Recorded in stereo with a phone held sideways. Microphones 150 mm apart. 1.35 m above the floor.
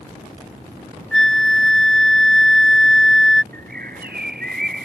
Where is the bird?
75° right (ahead or behind).